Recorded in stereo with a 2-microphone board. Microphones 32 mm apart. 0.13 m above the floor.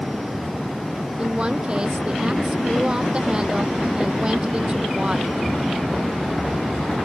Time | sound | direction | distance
1.2 | a woman speaking | 30° right (ahead or behind) | ?